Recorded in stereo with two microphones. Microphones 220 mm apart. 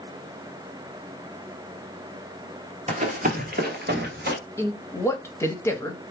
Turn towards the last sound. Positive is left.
turn(degrees=10)  # may be behind; listen again after turning